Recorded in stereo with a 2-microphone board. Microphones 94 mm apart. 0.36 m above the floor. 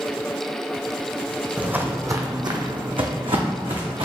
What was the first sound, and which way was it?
Footsteps, 15° right (ahead or behind).